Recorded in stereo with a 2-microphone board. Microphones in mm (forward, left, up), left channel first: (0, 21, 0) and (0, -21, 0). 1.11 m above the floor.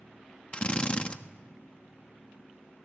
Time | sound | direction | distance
0.5 | a drill | 25° left (ahead or behind) | 1.3 m